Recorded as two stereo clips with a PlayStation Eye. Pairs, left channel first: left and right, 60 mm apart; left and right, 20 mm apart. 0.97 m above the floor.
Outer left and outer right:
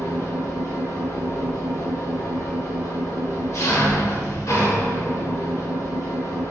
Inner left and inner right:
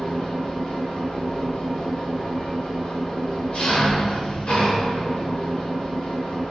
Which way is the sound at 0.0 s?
60° left (ahead or behind).